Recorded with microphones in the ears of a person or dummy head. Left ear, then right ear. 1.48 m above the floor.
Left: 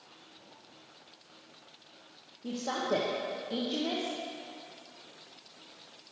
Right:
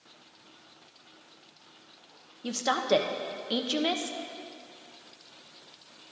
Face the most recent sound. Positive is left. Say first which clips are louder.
# right 6 dB
turn(degrees=-70)  # may be behind; listen again after turning